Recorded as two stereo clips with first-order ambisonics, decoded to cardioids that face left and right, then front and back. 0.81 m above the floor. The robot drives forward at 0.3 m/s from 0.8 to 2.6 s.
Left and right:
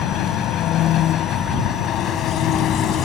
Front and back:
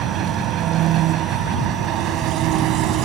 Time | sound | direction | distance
0.0 | an engine running | 135° left | ?